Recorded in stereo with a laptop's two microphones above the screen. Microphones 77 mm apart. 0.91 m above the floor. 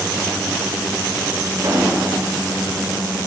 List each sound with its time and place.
1.6 s an explosion: 40° right (ahead or behind), 4 m